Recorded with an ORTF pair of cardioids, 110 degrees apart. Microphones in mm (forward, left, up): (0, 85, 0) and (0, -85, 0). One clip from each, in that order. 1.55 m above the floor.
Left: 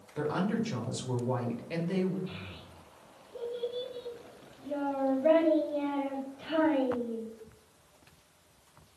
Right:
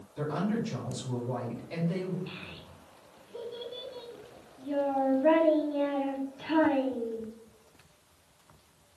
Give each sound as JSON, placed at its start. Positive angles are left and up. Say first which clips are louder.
{"t": 0.2, "sound": "a woman speaking", "louder": "left 1 dB", "azimuth_deg": 40, "distance_m": 1.3}
{"t": 2.3, "sound": "a child speaking", "louder": "right 1 dB", "azimuth_deg": -25, "distance_m": 1.1}